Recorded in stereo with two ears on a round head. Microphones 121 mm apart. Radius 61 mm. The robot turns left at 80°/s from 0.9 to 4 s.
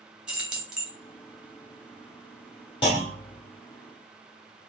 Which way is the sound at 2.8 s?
130° left.